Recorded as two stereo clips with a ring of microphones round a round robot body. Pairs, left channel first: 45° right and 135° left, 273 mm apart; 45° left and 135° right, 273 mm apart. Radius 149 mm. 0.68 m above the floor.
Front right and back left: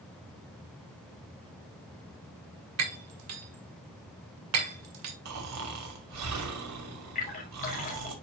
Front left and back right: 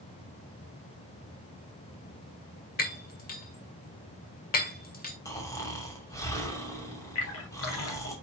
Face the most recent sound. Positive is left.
turn(degrees=15)